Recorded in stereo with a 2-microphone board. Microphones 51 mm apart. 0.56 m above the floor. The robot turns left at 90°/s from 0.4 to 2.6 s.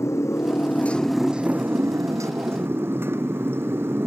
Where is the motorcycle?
70° left; by 4.1 s 130° right.